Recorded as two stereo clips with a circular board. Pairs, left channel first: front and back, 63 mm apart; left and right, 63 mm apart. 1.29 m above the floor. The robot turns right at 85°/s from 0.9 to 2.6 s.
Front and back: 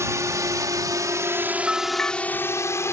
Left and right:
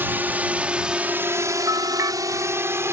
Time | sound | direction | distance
0.0 | a drone | 145° right | ?
1.7 | a bell | 100° right | ?